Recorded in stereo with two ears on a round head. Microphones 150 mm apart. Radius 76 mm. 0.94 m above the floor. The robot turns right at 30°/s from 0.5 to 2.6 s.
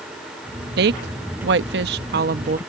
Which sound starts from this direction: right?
A woman speaking, at 0.8 s.